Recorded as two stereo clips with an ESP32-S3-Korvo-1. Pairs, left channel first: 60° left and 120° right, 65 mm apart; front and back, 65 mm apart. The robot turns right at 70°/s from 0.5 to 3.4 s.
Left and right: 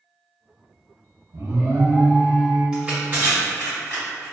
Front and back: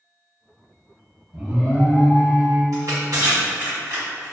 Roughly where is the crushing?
Behind.